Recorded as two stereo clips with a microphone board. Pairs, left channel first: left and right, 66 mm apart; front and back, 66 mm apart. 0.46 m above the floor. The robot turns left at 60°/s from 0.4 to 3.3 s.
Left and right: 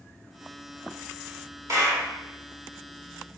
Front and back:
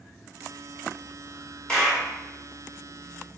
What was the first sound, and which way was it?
A clap, 75° right.